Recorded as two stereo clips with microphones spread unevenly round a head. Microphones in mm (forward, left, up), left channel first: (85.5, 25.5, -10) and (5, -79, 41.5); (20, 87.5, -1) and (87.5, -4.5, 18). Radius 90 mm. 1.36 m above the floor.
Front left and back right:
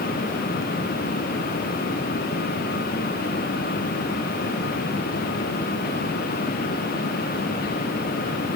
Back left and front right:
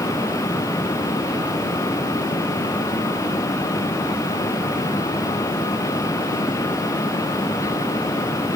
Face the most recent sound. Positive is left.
No sound to turn to.